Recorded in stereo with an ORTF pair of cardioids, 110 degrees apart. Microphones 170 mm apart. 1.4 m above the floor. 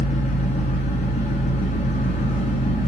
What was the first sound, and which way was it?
An engine running, 40° left.